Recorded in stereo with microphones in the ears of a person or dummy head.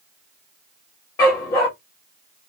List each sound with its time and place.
1.2 s a dog barking: 10° left (ahead or behind), 1.1 m